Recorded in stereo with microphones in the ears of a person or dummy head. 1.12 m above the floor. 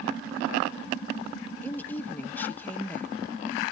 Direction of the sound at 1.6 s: 10° left (ahead or behind).